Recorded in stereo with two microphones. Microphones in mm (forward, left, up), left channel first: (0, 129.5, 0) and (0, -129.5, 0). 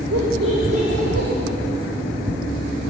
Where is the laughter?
75° right (ahead or behind), 5.5 m.